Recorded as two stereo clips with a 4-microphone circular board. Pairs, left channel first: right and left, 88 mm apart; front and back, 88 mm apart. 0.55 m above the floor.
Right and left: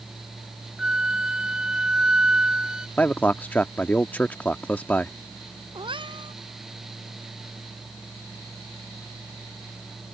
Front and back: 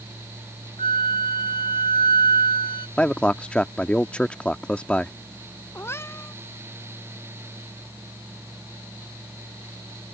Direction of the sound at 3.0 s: 50° right.